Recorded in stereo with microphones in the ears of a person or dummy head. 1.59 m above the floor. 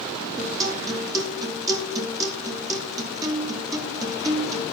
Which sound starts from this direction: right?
A guitar, at 0.4 s.